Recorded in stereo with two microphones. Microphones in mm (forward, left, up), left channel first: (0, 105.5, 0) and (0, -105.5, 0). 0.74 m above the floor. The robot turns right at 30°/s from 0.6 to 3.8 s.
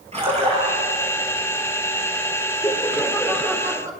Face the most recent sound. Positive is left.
turn(degrees=-165)